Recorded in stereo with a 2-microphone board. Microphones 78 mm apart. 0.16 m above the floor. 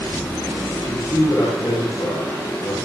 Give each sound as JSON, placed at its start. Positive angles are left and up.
{"t": 0.9, "sound": "a man speaking", "side_deg": 45, "distance_m": 6.5}